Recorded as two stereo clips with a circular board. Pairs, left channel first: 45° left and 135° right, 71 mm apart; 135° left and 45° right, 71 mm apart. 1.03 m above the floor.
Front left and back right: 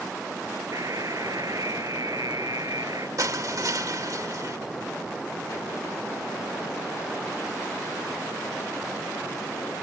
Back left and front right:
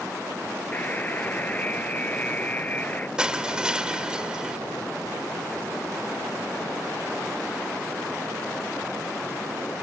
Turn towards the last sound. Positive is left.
turn(degrees=-120)